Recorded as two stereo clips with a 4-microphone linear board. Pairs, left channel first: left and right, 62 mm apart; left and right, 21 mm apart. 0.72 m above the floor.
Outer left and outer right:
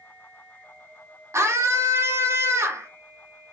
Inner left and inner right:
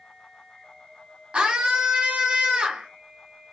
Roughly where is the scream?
Right.